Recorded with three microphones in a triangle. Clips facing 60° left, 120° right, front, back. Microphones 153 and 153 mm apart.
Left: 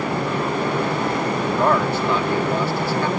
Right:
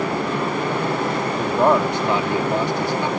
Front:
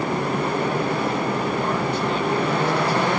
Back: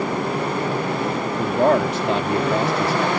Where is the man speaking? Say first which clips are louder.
Right 3 dB, back 6 dB; 170° left.